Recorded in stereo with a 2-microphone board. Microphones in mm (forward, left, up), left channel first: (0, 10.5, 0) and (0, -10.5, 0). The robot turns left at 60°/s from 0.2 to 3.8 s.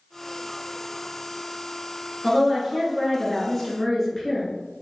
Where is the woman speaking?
15° right (ahead or behind), 1.2 m; by 4.5 s 15° left (ahead or behind), 1.2 m.